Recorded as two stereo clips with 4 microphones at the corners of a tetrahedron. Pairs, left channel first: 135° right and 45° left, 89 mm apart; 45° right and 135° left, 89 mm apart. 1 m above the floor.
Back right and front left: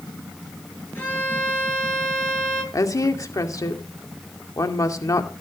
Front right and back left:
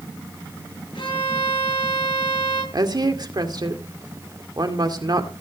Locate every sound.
0.9 s a violin: 70° right, 9.5 m
2.7 s a woman speaking: 175° left, 2 m